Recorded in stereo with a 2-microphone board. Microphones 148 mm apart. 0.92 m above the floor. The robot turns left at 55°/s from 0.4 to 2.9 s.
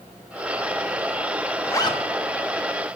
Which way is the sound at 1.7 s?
15° left (ahead or behind).